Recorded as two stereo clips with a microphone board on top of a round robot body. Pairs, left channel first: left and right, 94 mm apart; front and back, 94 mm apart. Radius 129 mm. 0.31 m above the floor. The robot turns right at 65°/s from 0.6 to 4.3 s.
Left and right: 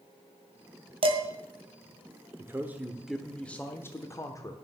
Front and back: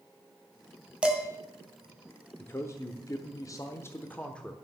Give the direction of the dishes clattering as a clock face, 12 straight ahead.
3 o'clock.